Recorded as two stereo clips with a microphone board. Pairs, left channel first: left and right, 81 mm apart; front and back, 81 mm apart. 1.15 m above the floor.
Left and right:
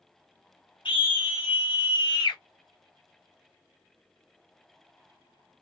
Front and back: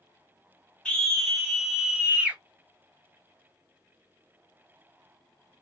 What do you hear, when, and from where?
0.8 s a scream: 80° left, 1.6 m; by 2.4 s 110° left, 1.5 m